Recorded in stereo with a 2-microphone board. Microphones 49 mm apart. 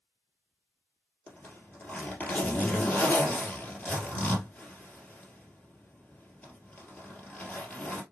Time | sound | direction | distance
1.3 | a zipper | 25° left (ahead or behind) | 2 m